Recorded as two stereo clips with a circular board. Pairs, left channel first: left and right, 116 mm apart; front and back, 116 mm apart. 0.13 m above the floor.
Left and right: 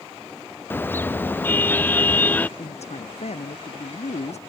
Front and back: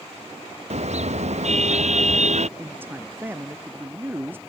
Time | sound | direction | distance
0.7 | a car horn | 160° left | ?
2.6 | a man speaking | 110° left | ?